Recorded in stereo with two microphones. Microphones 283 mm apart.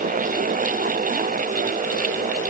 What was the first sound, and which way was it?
Only background noise.